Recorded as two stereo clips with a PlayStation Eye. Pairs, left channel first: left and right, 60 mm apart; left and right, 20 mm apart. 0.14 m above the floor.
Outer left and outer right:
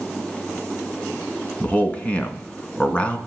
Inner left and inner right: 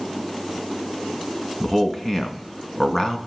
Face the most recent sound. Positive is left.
turn(degrees=20)  # may be behind; listen again after turning